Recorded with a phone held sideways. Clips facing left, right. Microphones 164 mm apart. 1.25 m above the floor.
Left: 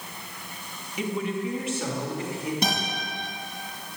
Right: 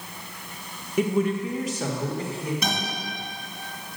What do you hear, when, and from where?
1.0 s a woman speaking: 50° right (ahead or behind), 0.7 m; by 2.5 s 35° right (ahead or behind), 1.8 m
2.6 s a guitar: 30° left (ahead or behind), 2.5 m